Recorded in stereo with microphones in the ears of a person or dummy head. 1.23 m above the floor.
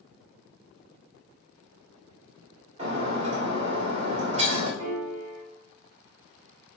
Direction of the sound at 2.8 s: 25° right (ahead or behind).